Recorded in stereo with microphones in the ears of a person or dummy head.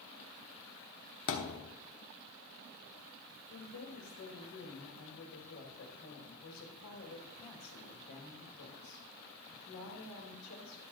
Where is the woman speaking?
90° left, 3 m.